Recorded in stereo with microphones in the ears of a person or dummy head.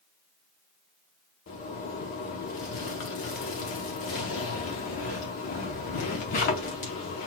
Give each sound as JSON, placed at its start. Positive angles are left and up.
{"t": 1.5, "sound": "a zipper", "side_deg": 40, "distance_m": 0.8}